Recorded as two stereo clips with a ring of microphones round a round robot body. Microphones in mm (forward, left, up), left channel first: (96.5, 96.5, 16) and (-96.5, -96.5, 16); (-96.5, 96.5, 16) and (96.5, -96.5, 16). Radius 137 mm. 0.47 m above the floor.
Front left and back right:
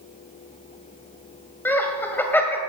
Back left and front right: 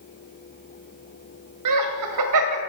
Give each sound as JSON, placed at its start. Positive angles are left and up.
{"t": 1.6, "sound": "laughter", "azimuth_deg": -40, "distance_m": 2.0}